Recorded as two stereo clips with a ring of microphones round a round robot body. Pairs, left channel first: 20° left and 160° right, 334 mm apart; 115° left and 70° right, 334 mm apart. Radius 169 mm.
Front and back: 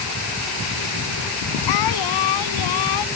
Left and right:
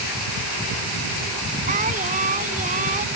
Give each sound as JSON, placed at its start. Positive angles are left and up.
{"t": 1.7, "sound": "singing", "azimuth_deg": 0}